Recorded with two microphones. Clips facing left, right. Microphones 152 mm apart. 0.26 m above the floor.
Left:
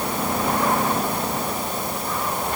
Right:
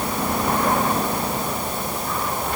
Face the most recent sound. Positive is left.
No sound to turn to.